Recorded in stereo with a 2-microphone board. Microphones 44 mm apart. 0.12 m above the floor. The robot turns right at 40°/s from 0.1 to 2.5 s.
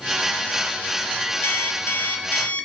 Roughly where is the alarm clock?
Left.